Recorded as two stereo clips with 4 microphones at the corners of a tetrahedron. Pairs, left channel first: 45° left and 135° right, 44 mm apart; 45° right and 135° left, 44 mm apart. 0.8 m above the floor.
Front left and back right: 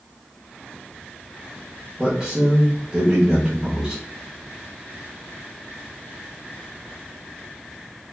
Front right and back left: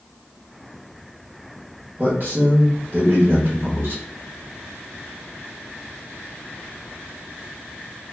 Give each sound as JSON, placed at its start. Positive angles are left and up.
{"t": 2.0, "sound": "a man speaking", "azimuth_deg": 160, "distance_m": 0.8}